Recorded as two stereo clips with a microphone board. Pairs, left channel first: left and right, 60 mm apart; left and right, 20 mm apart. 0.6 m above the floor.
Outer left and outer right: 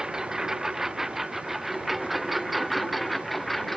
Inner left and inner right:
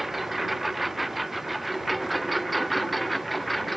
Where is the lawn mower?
10° right (ahead or behind); by 3.8 s 5° left (ahead or behind).